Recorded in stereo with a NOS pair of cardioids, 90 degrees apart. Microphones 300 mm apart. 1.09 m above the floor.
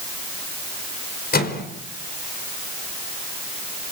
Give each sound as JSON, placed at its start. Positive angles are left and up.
{"t": 1.3, "sound": "a microwave", "azimuth_deg": 30, "distance_m": 4.5}